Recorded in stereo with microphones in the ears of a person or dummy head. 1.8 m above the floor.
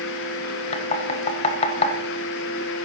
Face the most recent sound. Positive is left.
turn(degrees=35)  # may be behind; listen again after turning